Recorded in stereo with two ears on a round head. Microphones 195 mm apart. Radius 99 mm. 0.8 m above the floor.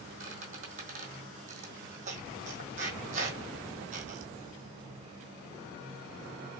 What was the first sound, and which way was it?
A squeak, 40° right (ahead or behind).